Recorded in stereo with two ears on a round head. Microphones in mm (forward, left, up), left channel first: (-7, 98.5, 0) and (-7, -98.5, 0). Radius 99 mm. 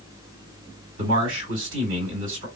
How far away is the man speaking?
About 2 m.